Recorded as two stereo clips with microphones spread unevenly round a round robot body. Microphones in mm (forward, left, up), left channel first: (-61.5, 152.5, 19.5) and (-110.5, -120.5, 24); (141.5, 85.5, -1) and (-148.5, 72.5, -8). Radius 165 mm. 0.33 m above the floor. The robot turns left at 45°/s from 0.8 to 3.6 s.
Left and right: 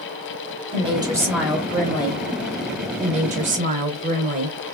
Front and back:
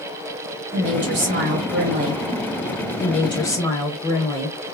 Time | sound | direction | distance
0.7 | a woman speaking | 160° right | 1.4 m
3.0 | a woman speaking | 45° right | 0.9 m